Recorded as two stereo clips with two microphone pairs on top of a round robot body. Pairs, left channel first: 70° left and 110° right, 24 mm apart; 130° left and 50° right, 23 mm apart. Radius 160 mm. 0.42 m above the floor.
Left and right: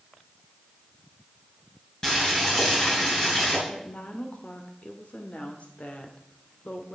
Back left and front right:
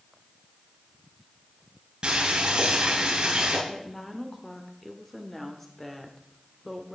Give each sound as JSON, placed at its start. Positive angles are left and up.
{"t": 2.0, "sound": "boiling", "azimuth_deg": 0, "distance_m": 6.5}
{"t": 3.7, "sound": "a woman speaking", "azimuth_deg": 55, "distance_m": 1.9}